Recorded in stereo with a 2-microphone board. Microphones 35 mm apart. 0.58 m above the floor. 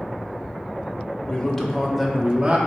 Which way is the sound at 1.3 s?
20° left (ahead or behind).